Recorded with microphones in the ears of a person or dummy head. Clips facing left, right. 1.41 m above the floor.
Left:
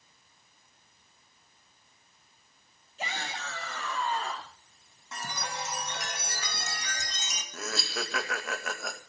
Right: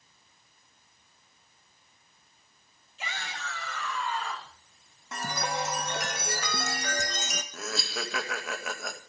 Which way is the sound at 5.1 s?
45° right (ahead or behind).